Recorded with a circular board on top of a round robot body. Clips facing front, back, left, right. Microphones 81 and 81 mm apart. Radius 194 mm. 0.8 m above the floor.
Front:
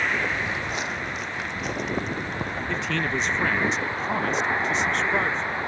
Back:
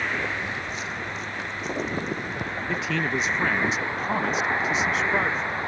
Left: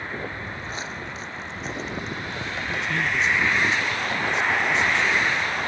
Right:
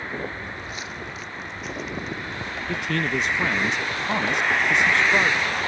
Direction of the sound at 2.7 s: 95° right.